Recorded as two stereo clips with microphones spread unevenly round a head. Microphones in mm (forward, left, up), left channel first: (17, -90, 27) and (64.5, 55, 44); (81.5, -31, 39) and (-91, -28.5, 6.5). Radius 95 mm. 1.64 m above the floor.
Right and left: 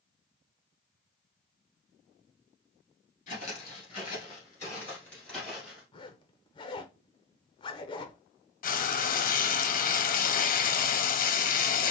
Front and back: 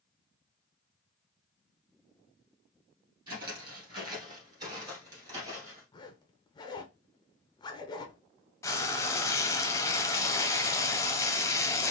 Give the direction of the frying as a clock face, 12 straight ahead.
3 o'clock.